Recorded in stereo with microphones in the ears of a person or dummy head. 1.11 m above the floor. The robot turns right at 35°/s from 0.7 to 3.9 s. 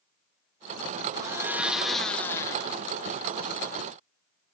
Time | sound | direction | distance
1.1 | a blender | 20° right | 0.5 m